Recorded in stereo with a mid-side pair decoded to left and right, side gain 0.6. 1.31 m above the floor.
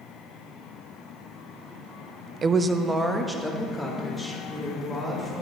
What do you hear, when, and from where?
2.4 s a woman speaking: 40° right, 0.5 m; by 5.4 s straight ahead, 4.5 m